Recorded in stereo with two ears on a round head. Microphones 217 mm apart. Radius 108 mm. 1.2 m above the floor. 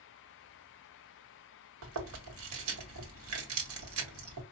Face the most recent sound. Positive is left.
turn(degrees=-70)  # may be behind; listen again after turning